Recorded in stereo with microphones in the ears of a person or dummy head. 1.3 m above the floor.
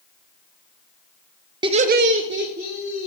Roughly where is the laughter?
Right.